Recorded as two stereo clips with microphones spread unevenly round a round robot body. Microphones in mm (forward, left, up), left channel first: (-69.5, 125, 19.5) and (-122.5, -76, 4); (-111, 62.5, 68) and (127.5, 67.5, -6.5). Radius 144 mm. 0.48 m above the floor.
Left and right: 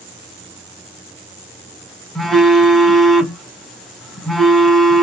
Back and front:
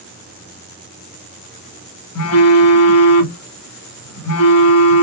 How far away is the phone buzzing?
About 0.8 m.